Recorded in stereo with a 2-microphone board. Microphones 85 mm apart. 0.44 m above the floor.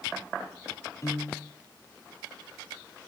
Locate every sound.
1.0 s a piano: 40° left (ahead or behind), 1.2 m